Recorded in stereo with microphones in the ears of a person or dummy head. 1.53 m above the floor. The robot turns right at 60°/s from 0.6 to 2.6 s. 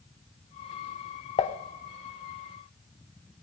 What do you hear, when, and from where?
1.4 s dishes clattering: 30° left (ahead or behind), 0.9 m; by 1.6 s 40° left (ahead or behind), 0.9 m